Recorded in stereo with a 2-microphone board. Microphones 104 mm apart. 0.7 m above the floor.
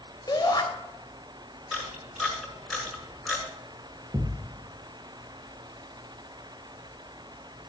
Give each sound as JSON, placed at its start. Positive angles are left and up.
{"t": 0.3, "sound": "a shout", "side_deg": 40, "distance_m": 2.5}
{"t": 1.7, "sound": "a camera shutter", "side_deg": 0, "distance_m": 5.0}
{"t": 4.1, "sound": "a thud", "side_deg": -40, "distance_m": 2.0}